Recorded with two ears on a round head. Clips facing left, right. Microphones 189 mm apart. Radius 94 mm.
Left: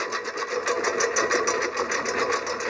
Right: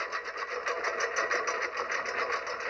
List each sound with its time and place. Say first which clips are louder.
0.0 s a lawn mower: left 9 dB; 65° left (ahead or behind)